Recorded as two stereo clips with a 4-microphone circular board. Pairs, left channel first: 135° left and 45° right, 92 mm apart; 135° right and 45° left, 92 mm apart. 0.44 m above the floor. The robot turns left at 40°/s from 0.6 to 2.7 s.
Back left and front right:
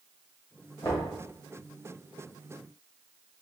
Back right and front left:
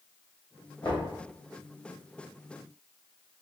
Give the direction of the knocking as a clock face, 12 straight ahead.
6 o'clock.